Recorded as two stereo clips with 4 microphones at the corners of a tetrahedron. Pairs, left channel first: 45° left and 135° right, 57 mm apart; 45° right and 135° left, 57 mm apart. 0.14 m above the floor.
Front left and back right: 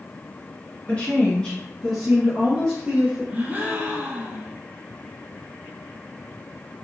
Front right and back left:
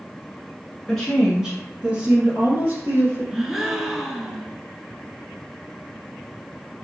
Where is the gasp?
145° right, 0.6 m.